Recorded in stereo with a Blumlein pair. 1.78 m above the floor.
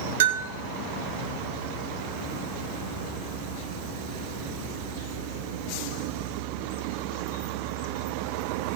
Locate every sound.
0.2 s a bell: 55° right, 1.9 m